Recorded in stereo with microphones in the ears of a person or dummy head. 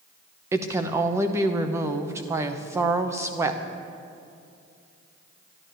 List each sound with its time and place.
0.5 s a woman speaking: 20° right (ahead or behind), 0.8 m